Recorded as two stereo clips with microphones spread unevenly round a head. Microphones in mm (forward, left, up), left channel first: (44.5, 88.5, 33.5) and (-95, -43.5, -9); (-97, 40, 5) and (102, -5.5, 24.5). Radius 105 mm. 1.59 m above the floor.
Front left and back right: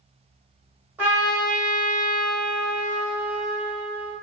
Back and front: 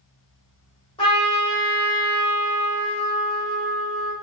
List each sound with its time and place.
1.0 s a trumpet: 125° left, 1.5 m